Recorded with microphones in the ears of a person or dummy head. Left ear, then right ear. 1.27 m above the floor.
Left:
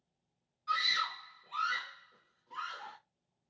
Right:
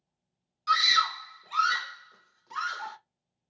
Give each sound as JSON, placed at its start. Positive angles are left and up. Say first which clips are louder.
{"t": 0.7, "sound": "a scream", "louder": "right 9 dB", "side_deg": -70, "distance_m": 0.6}